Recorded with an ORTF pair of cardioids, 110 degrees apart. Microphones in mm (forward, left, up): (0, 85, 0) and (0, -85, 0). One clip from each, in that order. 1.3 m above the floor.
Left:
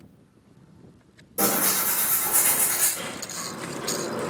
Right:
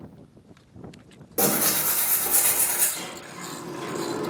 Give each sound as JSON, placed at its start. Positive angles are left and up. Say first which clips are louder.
{"t": 1.4, "sound": "tearing paper", "louder": "even", "azimuth_deg": -55, "distance_m": 1.5}
{"t": 3.0, "sound": "a sliding door", "louder": "left 3 dB", "azimuth_deg": -20, "distance_m": 1.1}